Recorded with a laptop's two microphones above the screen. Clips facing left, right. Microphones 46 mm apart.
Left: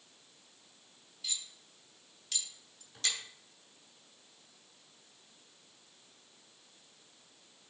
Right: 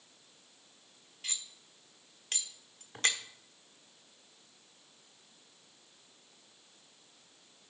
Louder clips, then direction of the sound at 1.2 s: Even; 45° right (ahead or behind).